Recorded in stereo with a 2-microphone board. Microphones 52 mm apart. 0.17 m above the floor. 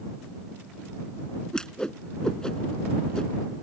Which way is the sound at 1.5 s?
10° left (ahead or behind).